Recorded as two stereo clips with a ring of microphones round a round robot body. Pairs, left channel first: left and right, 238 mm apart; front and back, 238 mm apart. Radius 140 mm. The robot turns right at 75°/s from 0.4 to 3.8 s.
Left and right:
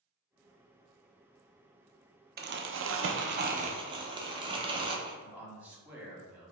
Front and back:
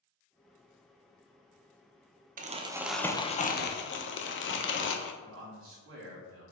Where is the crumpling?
130° right, 0.5 m; by 5.1 s 25° right, 0.5 m.